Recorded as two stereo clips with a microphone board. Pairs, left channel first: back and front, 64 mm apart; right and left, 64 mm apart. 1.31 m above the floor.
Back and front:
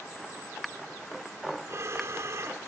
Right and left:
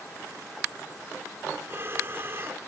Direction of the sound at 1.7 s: 40° left.